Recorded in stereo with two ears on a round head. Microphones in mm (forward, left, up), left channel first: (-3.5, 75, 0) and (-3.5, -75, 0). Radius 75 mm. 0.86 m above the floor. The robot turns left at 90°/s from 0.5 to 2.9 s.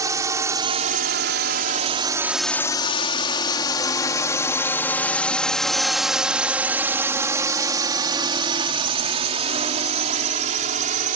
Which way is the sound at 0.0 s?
20° right (ahead or behind).